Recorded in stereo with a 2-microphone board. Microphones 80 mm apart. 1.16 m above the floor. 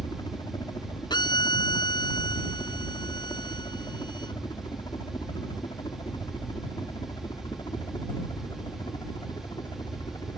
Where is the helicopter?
60° left (ahead or behind).